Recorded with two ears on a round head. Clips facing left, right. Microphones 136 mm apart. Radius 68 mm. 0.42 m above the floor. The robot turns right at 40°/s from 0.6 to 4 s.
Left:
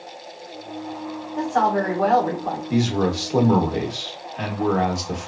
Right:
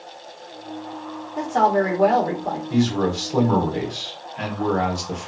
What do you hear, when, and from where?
1.4 s a woman speaking: 15° right (ahead or behind), 1.0 m; by 2.6 s 20° right (ahead or behind), 1.0 m
2.7 s a man speaking: 15° left (ahead or behind), 0.7 m; by 5.3 s centre (ahead or behind), 0.7 m